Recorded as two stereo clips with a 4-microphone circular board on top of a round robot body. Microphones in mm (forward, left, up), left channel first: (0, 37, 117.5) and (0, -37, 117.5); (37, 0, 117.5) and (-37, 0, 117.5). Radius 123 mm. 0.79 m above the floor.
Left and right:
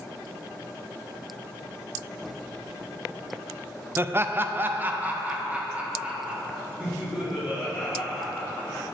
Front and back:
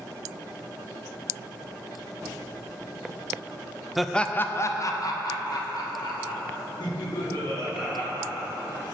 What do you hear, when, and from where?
4.0 s laughter: 100° right, 0.5 m; by 8.8 s 10° right, 3 m